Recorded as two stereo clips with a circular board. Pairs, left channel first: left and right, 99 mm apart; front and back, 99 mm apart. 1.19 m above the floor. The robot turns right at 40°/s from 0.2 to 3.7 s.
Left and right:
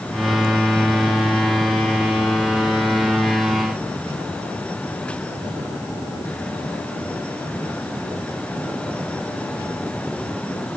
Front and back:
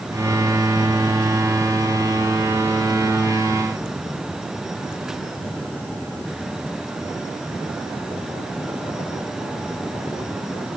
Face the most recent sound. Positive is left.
No sound to turn to.